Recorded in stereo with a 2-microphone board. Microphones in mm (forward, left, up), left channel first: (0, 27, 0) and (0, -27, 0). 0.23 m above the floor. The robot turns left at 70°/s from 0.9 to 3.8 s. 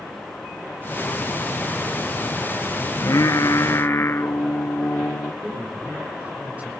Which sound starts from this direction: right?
A man speaking, at 5.4 s.